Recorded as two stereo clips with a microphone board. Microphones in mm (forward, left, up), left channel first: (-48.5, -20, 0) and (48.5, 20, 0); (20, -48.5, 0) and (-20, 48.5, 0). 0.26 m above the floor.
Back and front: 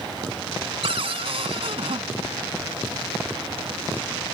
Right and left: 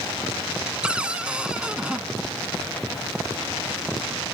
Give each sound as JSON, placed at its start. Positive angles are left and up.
{"t": 0.8, "sound": "a cupboard door", "azimuth_deg": 35}